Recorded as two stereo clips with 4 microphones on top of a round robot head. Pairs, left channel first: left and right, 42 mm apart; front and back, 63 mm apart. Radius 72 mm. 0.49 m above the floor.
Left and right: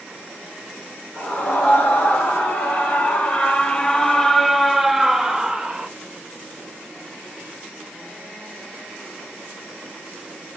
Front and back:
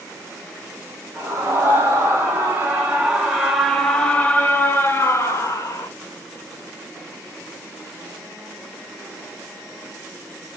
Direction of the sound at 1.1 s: 135° left.